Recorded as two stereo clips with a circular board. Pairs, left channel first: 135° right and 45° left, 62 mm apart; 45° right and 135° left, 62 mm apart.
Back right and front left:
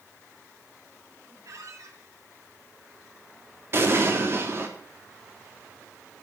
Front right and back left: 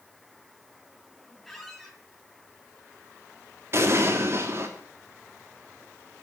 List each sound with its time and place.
1.4 s a squeak: 40° left, 3 m
3.7 s an explosion: 90° left, 3 m